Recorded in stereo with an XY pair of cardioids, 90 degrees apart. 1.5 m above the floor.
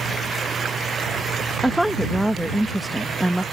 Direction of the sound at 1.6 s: Straight ahead.